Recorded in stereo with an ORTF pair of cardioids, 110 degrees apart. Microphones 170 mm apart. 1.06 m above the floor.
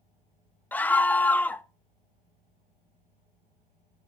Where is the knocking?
I don't hear knocking.